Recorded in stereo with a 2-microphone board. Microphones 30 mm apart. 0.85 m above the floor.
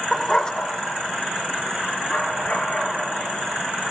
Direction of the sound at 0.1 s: 10° right (ahead or behind).